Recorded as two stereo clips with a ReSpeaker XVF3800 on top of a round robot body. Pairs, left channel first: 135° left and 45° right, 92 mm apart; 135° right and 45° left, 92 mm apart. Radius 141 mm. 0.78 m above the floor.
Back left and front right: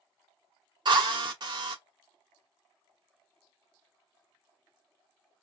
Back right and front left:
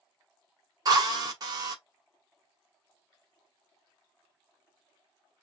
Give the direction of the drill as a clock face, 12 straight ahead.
12 o'clock.